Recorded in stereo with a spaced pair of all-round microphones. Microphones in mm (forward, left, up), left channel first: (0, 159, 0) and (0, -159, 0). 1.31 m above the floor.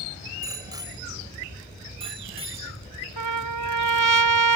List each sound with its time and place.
0.4 s a bicycle bell: 10° right (ahead or behind); by 3.2 s 20° right (ahead or behind)
3.2 s a trumpet: 75° right (ahead or behind)